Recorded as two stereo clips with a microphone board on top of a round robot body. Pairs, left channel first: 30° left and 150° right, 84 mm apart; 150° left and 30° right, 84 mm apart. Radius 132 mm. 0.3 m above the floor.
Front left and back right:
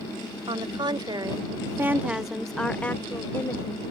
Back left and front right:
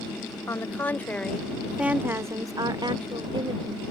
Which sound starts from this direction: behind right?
A woman speaking, at 0.5 s.